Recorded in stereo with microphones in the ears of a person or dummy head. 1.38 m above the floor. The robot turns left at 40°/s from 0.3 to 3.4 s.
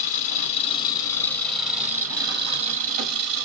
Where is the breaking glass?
I don't hear breaking glass.